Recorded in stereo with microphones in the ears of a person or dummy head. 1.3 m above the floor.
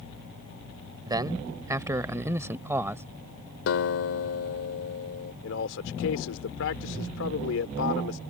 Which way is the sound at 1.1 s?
25° right (ahead or behind).